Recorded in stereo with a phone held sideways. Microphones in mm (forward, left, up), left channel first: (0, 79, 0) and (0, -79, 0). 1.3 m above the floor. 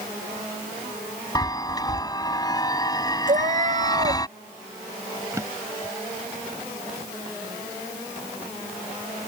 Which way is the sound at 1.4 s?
25° left (ahead or behind).